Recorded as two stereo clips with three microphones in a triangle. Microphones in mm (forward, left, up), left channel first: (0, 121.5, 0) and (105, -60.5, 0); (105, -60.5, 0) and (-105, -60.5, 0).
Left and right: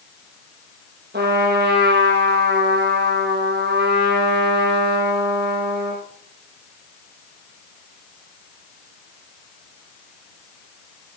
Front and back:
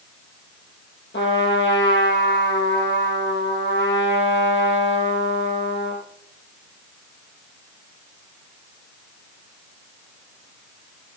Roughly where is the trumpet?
Ahead right.